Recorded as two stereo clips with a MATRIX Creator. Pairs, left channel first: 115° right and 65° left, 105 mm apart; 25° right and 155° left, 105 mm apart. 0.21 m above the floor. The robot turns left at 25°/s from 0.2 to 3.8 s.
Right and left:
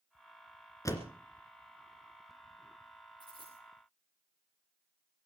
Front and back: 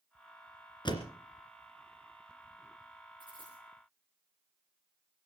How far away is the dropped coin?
About 8 m.